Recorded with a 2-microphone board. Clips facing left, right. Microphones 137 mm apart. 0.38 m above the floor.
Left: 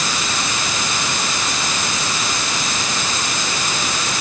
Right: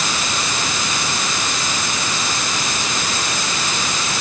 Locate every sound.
Only background noise.